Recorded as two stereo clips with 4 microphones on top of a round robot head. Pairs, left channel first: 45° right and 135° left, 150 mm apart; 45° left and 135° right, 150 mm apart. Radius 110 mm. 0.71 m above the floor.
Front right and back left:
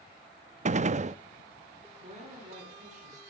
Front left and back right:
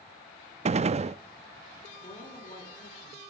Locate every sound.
0.7 s a gunshot: 175° left, 0.5 m
2.0 s a woman speaking: 95° left, 9 m